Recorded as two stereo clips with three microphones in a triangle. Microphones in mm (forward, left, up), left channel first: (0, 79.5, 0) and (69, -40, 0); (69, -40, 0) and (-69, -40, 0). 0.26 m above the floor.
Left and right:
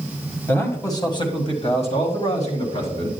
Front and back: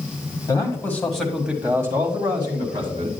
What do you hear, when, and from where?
0.5 s a man speaking: 50° left, 1.4 m; by 3.1 s 140° left, 2 m